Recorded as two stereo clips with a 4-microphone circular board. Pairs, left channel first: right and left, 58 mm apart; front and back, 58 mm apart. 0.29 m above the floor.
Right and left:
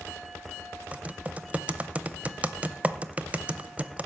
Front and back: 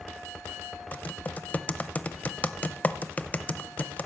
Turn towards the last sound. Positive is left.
turn(degrees=40)